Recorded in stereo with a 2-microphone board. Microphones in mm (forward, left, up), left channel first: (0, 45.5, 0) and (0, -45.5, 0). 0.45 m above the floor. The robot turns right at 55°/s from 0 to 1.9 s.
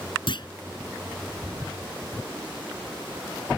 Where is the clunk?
65° left (ahead or behind); by 0.5 s 55° left (ahead or behind).